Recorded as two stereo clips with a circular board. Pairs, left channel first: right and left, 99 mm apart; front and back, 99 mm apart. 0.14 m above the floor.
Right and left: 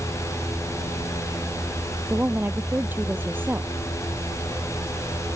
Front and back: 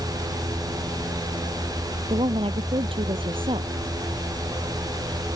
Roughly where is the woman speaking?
Behind.